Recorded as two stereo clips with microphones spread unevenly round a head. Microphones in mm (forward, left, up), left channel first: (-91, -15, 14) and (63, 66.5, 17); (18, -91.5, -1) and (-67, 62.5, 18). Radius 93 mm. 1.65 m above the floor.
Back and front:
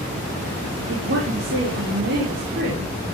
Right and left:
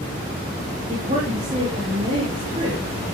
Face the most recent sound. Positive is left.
turn(degrees=55)